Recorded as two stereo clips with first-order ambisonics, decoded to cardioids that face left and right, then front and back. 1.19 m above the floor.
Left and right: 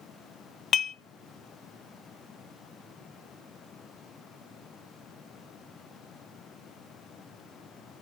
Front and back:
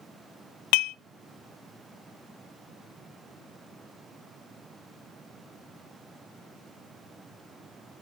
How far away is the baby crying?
No baby crying in this recording.